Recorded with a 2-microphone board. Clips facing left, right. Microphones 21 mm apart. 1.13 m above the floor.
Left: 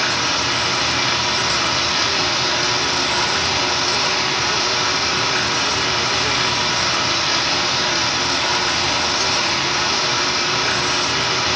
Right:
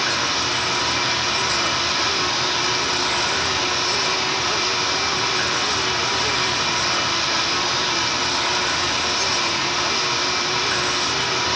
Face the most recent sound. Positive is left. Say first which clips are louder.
# left 2 dB
turn(degrees=70)  # may be behind; listen again after turning